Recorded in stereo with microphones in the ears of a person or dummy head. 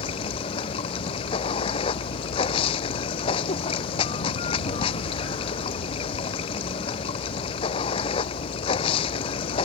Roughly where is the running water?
Left.